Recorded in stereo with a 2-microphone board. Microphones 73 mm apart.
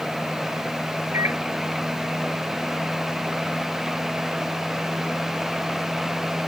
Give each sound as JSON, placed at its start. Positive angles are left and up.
{"t": 1.1, "sound": "a microwave", "side_deg": -35}